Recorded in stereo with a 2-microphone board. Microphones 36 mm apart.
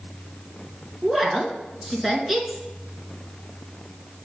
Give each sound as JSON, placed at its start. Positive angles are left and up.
{"t": 1.0, "sound": "a woman speaking", "side_deg": -5, "distance_m": 1.5}